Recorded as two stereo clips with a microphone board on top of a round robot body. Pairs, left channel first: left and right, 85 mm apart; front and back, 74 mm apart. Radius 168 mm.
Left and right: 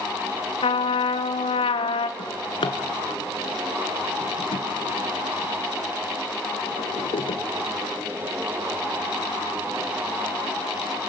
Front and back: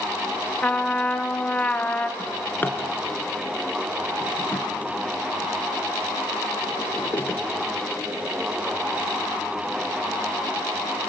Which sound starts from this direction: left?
A trumpet, at 0.6 s.